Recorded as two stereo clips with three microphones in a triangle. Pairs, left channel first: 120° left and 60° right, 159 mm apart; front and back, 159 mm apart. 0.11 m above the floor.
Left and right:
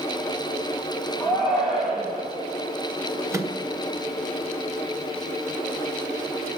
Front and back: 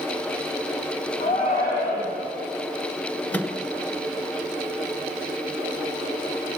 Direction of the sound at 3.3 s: 60° right.